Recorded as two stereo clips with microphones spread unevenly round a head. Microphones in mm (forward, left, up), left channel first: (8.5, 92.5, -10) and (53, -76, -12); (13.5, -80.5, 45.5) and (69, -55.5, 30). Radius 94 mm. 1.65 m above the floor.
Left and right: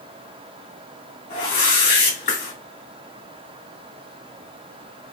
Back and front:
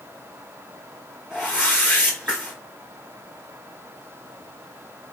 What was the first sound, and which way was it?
A whoosh, 125° left.